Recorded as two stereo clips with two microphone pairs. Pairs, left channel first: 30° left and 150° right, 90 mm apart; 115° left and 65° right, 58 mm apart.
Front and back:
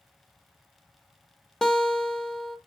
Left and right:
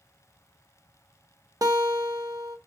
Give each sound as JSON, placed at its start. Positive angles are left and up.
{"t": 1.6, "sound": "a guitar", "azimuth_deg": -60, "distance_m": 0.5}